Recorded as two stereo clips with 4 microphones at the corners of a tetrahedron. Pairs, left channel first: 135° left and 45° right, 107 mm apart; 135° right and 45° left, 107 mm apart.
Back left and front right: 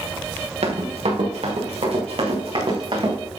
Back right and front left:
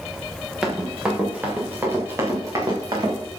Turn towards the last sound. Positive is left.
turn(degrees=-5)